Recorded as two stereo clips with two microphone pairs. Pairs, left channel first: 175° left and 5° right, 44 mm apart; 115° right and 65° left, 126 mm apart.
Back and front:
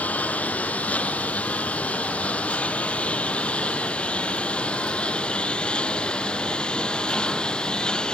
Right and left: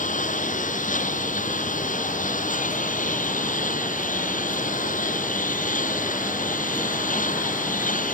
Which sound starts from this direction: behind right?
A lawn mower, at 0.0 s.